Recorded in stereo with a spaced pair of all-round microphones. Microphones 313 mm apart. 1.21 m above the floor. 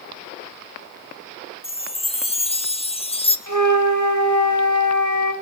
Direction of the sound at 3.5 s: 65° right (ahead or behind).